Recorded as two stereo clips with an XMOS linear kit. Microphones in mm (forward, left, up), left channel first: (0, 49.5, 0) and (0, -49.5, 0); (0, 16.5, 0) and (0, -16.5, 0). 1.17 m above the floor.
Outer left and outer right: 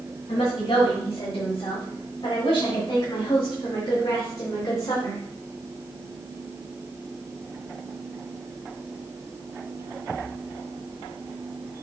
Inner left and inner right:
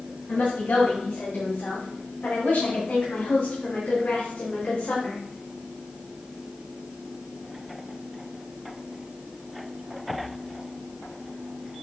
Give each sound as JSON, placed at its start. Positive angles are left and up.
{"t": 0.3, "sound": "a woman speaking", "side_deg": 65, "distance_m": 5.0}